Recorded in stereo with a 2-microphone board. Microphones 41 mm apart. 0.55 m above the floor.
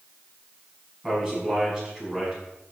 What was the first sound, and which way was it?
A man speaking, 15° right (ahead or behind).